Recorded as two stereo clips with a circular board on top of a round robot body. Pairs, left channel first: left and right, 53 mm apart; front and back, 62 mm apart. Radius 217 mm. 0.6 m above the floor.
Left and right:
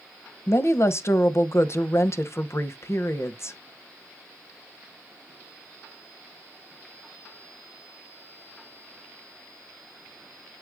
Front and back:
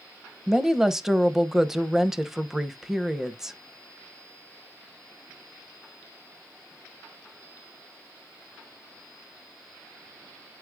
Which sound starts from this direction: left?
A woman speaking, at 0.5 s.